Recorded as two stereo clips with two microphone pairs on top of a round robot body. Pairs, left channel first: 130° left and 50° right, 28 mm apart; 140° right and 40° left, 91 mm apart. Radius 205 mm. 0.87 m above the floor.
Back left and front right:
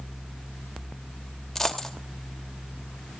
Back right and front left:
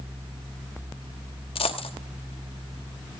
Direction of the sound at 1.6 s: 150° right.